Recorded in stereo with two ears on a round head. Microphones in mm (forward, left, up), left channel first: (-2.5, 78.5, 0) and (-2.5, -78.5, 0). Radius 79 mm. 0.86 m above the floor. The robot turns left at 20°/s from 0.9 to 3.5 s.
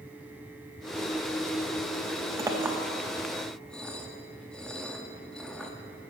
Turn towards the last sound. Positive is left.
turn(degrees=5)  # may be behind; listen again after turning